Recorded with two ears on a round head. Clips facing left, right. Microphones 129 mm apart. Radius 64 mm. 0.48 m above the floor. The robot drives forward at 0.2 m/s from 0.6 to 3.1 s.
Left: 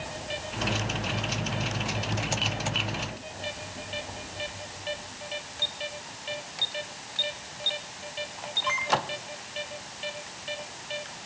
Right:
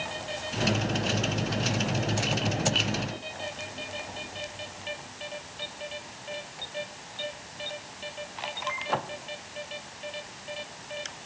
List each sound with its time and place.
Only background noise.